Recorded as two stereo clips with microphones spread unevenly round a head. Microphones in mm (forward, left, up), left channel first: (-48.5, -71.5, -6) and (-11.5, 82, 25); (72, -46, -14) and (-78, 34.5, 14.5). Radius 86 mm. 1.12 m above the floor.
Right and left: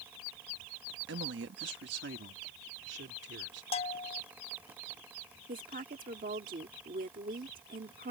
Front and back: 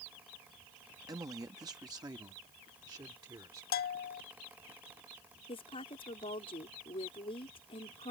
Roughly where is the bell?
Ahead right.